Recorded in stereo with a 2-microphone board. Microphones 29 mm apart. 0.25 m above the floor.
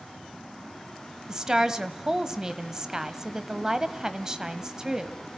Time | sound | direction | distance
1.3 | a woman speaking | 20° right (ahead or behind) | 1.1 m